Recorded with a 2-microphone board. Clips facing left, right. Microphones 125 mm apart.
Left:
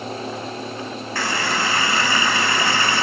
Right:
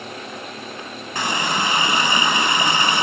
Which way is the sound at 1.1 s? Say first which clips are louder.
Right 1 dB; 20° right (ahead or behind).